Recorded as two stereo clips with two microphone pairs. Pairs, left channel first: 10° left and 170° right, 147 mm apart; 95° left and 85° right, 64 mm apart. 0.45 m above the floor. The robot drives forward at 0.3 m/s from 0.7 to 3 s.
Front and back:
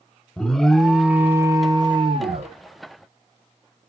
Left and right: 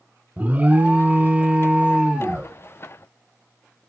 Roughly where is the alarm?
Ahead right.